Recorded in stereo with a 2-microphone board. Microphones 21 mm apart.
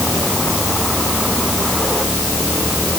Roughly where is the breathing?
No breathing in this recording.